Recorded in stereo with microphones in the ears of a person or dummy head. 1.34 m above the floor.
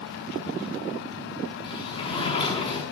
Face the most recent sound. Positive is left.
turn(degrees=30)  # may be behind; listen again after turning